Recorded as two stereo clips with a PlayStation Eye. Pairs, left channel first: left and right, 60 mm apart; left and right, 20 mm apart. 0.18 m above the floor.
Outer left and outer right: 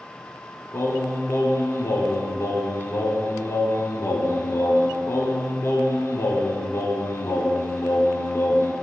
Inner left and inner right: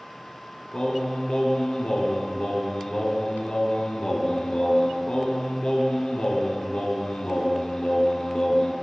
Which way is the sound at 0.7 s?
45° left (ahead or behind).